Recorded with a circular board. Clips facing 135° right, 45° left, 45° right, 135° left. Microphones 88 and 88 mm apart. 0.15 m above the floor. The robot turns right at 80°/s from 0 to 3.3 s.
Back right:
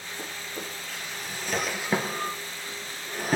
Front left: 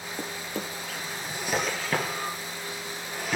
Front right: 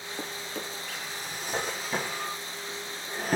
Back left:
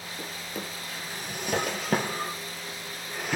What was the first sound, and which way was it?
A drawer, 20° left.